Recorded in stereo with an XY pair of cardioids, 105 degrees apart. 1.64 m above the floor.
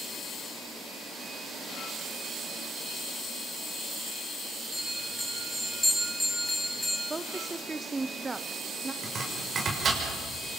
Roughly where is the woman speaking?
Ahead.